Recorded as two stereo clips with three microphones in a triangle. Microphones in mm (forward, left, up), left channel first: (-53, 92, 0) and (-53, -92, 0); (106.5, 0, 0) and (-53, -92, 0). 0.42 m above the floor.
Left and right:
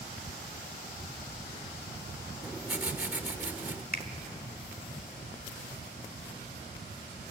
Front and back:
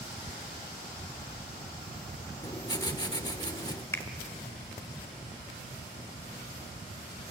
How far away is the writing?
About 1.0 m.